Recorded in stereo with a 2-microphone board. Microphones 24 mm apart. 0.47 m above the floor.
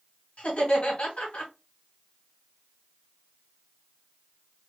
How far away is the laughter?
About 3 m.